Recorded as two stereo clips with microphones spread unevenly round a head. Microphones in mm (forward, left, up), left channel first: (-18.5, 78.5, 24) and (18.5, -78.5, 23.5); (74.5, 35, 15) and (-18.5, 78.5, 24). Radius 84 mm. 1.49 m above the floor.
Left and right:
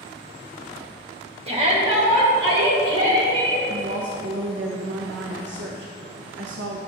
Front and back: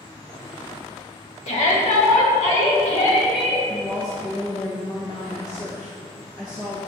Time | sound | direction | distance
1.5 | a shout | 20° right | 1.5 m
3.7 | a woman speaking | 95° right | 0.7 m